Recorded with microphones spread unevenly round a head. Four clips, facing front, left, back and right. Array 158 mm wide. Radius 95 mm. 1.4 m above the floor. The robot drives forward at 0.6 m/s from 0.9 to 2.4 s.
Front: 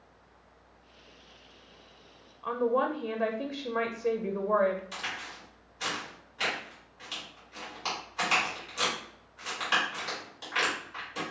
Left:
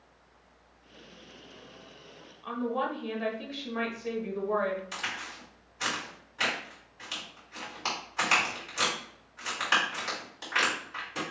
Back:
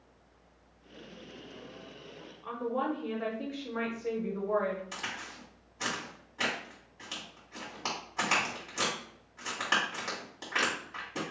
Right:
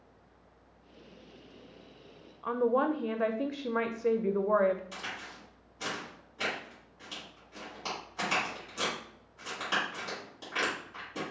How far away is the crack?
About 2 m.